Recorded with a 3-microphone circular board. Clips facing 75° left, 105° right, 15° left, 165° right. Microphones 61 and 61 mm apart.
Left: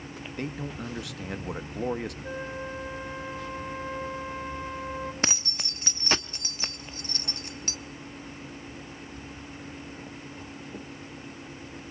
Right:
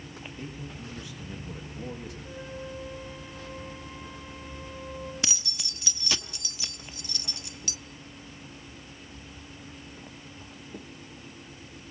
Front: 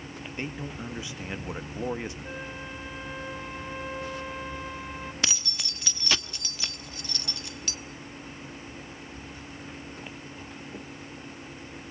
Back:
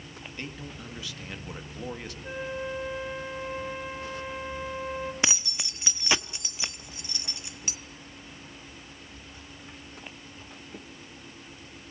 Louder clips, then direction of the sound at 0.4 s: Left 8 dB, front 5 dB; 80° left.